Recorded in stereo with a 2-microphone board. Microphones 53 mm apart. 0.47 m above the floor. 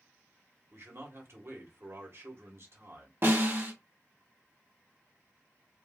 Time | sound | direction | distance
0.7 | a man speaking | 55° right (ahead or behind) | 1.4 m
3.2 | a snare drum | 40° right (ahead or behind) | 1.3 m